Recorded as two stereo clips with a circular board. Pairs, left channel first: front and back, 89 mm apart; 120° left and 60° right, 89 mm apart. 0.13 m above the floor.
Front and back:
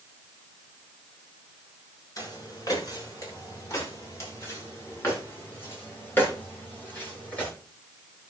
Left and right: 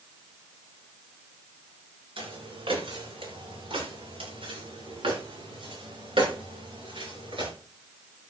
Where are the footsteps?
50° right, 8 m; by 7.5 s 75° right, 10 m.